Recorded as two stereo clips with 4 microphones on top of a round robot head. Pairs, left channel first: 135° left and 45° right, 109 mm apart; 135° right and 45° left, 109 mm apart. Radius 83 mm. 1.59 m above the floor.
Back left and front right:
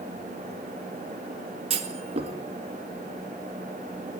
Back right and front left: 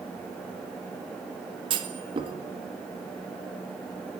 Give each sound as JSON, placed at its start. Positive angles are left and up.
{"t": 1.7, "sound": "a clunk", "azimuth_deg": -5, "distance_m": 2.0}